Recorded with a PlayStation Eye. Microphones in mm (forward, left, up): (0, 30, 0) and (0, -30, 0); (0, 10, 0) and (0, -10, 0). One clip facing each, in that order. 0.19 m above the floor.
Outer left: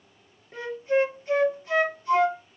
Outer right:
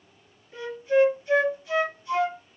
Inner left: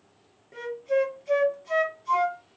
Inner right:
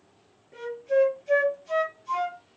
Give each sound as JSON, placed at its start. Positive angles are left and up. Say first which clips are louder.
{"t": 0.5, "sound": "a flute", "louder": "outer right 2 dB, inner right 2 dB", "side_deg": 35, "distance_m": 1.1}